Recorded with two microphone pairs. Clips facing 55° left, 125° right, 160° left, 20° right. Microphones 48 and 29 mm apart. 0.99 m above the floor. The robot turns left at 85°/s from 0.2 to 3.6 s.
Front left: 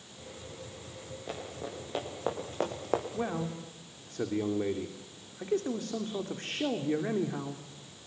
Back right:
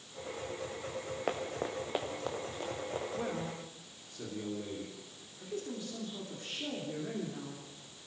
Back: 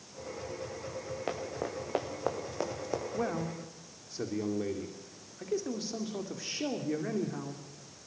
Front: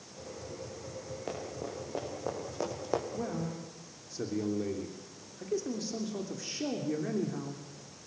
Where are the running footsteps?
140° right, 5 m; by 3.0 s 45° left, 3.5 m.